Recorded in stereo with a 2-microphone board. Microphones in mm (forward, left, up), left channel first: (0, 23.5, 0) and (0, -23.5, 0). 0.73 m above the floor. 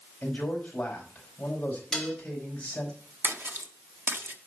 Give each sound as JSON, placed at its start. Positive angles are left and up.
{"t": 0.2, "sound": "a man speaking", "side_deg": 25, "distance_m": 4.5}
{"t": 1.9, "sound": "dishes clattering", "side_deg": 15, "distance_m": 2.5}
{"t": 3.2, "sound": "a splash", "side_deg": -55, "distance_m": 1.1}